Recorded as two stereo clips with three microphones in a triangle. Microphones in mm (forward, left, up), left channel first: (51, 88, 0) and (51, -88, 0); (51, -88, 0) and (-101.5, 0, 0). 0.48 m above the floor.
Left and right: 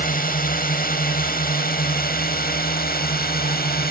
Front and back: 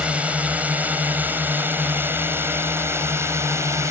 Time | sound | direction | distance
0.0 | a drone | 70° left | ?